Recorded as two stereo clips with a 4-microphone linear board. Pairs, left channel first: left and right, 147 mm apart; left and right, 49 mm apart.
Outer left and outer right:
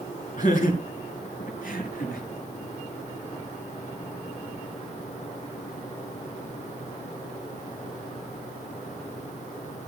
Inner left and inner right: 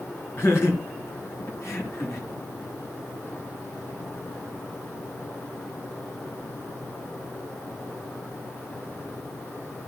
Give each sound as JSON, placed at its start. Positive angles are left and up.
{"t": 0.4, "sound": "laughter", "side_deg": 60, "distance_m": 4.0}